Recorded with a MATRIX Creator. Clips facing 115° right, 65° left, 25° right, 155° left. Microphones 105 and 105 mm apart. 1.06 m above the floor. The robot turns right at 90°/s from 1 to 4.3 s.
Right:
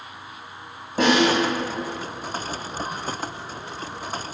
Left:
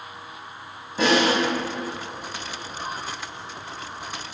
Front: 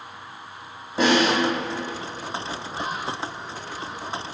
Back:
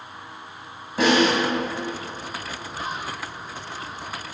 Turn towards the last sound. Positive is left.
turn(degrees=-150)